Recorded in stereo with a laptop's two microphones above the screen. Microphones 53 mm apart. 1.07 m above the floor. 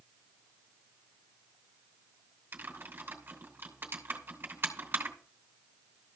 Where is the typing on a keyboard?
45° right (ahead or behind), 2.5 m.